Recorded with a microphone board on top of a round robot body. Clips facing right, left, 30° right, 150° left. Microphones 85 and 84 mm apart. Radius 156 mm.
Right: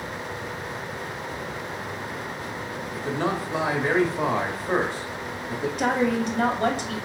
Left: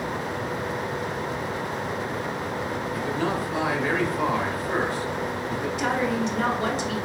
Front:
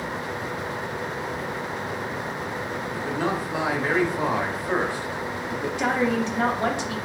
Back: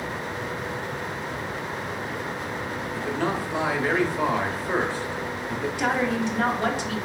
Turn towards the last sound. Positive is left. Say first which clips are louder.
# right 2 dB, front 1 dB
turn(degrees=-95)